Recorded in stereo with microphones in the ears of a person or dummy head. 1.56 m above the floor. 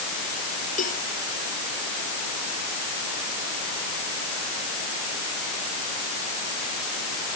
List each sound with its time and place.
0.8 s a cowbell: 40° left (ahead or behind)